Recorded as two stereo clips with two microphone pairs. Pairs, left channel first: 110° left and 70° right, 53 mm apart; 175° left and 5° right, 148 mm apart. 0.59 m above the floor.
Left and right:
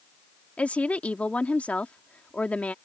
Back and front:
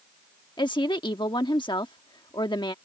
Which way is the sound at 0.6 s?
150° left.